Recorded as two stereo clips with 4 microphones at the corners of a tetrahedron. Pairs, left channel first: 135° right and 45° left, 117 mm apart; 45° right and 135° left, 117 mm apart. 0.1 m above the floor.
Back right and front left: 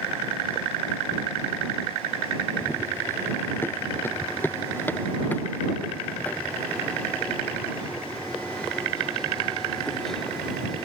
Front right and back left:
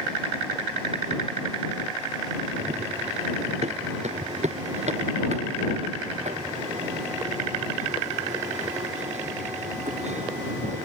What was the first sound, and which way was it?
Running footsteps, 155° left.